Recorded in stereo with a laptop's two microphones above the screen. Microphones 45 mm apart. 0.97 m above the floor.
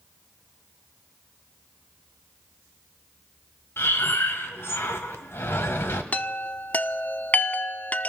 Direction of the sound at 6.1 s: 30° left (ahead or behind).